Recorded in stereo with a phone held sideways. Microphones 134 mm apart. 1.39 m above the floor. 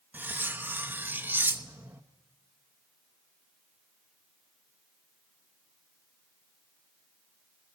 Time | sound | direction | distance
0.1 | cutlery clinking | 15° right (ahead or behind) | 0.9 m